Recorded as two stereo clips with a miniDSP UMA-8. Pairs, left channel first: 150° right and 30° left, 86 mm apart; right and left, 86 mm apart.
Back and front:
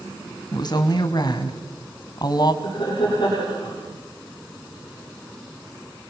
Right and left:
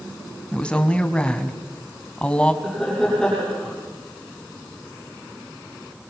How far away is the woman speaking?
About 2.5 m.